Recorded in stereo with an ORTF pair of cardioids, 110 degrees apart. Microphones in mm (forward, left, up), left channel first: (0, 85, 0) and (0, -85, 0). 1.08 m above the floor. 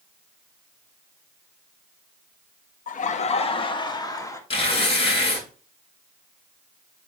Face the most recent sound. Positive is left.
turn(degrees=35)